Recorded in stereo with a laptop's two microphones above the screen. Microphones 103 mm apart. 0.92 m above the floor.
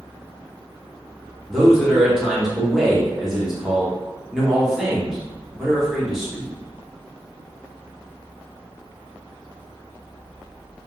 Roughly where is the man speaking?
Centre.